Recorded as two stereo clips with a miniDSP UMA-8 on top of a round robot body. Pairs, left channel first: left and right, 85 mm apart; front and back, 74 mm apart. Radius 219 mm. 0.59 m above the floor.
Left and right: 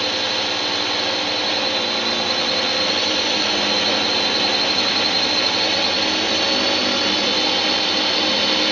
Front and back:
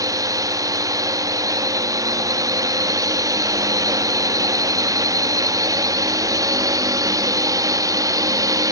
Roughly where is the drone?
Behind.